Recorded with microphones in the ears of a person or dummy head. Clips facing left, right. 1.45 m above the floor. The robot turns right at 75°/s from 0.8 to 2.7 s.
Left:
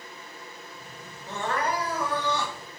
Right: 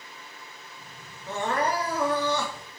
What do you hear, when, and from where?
1.3 s crying: straight behind, 2.5 m; by 2.6 s 80° right, 2.5 m